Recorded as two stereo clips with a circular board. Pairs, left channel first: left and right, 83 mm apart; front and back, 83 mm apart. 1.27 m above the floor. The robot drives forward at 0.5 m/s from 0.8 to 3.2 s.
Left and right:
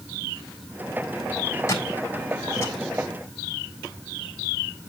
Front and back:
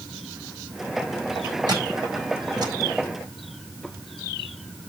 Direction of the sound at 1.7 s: 145° left.